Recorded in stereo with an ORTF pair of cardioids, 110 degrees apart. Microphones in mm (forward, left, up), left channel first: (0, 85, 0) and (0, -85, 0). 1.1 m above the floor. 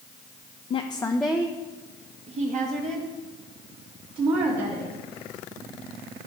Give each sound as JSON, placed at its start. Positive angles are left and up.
{"t": 0.7, "sound": "a woman speaking", "azimuth_deg": 40, "distance_m": 0.5}